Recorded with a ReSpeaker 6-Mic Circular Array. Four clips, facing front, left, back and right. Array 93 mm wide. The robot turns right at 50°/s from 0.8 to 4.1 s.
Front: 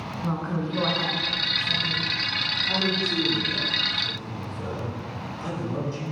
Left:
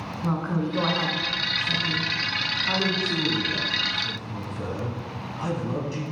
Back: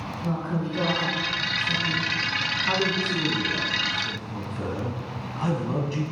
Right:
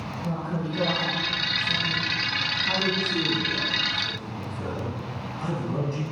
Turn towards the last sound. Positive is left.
turn(degrees=160)